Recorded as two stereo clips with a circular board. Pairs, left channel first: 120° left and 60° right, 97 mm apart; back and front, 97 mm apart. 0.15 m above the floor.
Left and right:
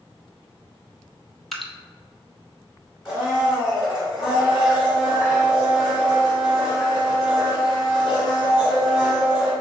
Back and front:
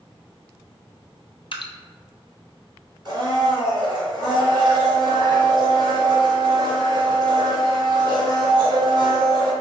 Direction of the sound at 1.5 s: 150° right.